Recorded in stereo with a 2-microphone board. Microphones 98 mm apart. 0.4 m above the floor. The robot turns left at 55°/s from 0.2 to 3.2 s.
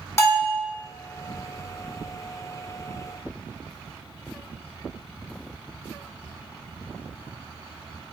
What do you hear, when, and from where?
0.2 s a bell: 30° left (ahead or behind), 0.9 m; by 0.6 s 50° left (ahead or behind), 0.9 m